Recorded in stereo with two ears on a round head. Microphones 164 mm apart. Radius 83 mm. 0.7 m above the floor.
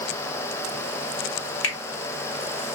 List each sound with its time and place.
1.6 s a finger snap: 75° left (ahead or behind), 1.3 m